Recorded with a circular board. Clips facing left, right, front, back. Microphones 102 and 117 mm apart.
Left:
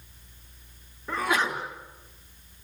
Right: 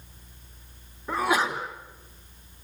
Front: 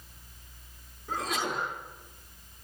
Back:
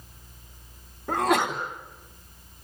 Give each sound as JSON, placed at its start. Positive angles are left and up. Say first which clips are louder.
{"t": 1.1, "sound": "a sneeze", "louder": "right 2 dB, back 9 dB", "azimuth_deg": -170, "distance_m": 4.0}